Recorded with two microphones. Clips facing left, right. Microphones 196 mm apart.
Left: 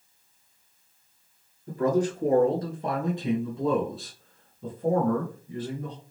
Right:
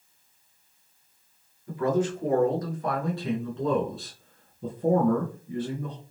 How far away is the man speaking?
About 1.5 m.